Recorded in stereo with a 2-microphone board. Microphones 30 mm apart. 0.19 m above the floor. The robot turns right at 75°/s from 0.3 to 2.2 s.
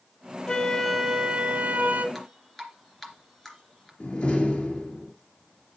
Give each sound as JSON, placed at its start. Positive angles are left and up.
{"t": 0.5, "sound": "a flute", "azimuth_deg": 150, "distance_m": 1.4}
{"t": 2.1, "sound": "dripping", "side_deg": 5, "distance_m": 2.5}
{"t": 4.0, "sound": "a door slam", "side_deg": 50, "distance_m": 3.0}